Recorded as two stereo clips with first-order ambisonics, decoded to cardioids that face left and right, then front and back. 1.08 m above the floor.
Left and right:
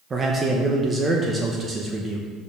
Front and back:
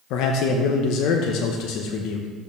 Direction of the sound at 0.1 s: 20° right.